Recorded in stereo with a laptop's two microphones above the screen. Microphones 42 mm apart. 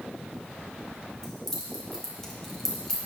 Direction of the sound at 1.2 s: 10° left (ahead or behind).